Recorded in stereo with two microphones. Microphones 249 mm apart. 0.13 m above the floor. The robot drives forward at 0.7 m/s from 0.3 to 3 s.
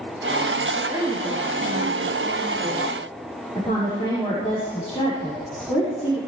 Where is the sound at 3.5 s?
25° left (ahead or behind), 6.5 m.